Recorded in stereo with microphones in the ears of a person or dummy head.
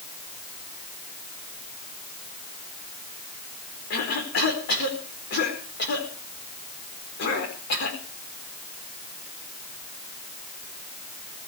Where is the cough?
50° left (ahead or behind), 4.5 m.